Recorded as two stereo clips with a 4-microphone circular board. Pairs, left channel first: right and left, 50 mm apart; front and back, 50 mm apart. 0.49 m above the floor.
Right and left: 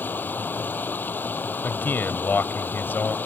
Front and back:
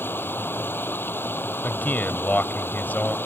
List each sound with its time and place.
0.0 s running water: 40° right
1.6 s a man speaking: 50° right